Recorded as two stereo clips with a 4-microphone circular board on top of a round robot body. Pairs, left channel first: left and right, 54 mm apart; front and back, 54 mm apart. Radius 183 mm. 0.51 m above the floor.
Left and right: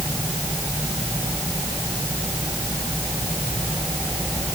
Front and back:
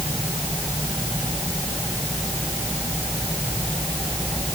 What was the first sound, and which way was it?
Only background noise.